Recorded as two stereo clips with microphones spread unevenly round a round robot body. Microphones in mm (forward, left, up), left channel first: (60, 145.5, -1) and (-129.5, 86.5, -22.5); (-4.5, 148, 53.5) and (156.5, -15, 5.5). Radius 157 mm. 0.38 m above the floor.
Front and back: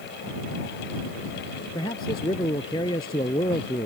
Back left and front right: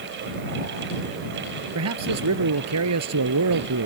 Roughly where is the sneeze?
No sneeze in this recording.